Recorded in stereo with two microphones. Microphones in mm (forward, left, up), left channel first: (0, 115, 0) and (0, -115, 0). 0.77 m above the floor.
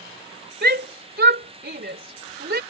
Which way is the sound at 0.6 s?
50° right (ahead or behind).